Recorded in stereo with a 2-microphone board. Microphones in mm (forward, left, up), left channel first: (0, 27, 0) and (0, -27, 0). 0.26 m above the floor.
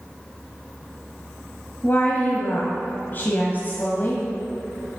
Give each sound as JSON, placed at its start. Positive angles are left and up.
{"t": 1.8, "sound": "a woman speaking", "side_deg": 40, "distance_m": 1.3}